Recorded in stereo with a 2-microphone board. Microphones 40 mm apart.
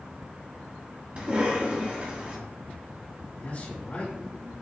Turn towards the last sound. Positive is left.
turn(degrees=40)  # may be behind; listen again after turning